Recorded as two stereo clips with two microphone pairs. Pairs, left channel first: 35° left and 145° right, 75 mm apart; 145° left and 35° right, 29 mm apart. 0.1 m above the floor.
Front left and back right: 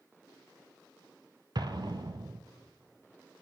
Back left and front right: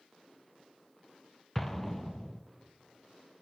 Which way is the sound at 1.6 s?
135° right.